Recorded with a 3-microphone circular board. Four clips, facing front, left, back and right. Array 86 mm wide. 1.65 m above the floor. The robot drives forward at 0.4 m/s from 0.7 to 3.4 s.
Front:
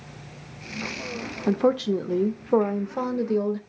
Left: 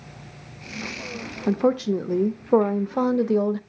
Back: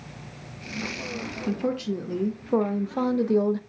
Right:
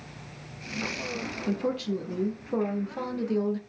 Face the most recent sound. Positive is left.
turn(degrees=105)